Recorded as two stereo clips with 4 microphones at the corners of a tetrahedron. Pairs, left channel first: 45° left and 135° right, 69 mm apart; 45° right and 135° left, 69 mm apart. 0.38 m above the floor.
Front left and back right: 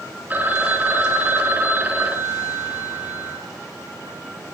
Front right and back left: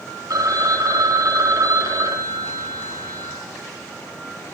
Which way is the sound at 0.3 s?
160° left.